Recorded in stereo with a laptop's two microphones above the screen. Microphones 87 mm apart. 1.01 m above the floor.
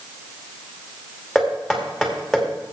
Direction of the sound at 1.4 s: Centre (ahead or behind).